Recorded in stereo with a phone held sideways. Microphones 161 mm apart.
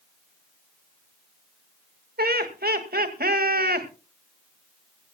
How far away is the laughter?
About 2.0 m.